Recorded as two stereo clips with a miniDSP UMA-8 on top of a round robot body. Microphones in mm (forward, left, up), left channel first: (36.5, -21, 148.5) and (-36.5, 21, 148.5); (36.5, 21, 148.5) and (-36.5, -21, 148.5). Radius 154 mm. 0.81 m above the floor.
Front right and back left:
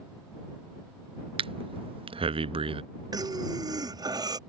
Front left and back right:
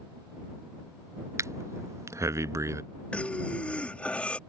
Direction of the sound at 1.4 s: 155° left.